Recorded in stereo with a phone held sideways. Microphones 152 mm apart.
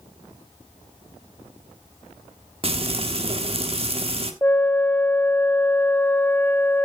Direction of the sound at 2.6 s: 40° right (ahead or behind).